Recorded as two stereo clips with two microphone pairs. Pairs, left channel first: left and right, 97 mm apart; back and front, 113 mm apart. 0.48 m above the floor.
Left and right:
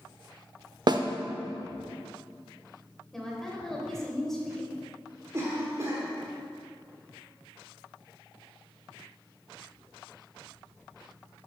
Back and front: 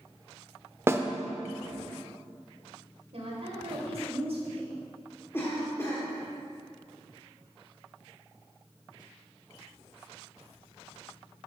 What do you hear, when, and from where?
0.9 s a snare drum: 65° right, 0.6 m
3.1 s a woman speaking: straight ahead, 2 m
5.3 s a cough: 125° right, 1.3 m